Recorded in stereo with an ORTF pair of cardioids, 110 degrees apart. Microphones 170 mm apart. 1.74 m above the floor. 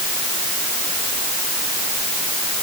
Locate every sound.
Only background noise.